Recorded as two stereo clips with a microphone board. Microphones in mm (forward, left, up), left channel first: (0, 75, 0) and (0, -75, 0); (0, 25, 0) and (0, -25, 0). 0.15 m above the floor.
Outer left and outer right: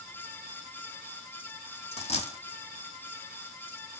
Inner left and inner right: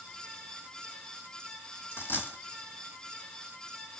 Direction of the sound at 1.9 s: 45° left (ahead or behind).